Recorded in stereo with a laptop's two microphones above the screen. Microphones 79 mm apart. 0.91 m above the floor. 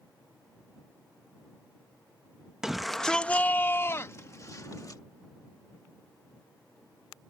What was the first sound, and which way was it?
A shout, 5° right (ahead or behind).